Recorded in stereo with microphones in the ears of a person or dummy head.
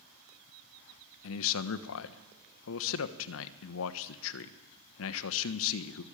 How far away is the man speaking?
About 1.1 m.